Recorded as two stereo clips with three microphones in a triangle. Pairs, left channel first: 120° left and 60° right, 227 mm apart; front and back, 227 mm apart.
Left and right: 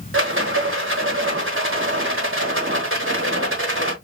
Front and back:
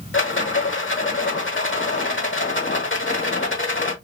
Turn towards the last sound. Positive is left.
turn(degrees=-30)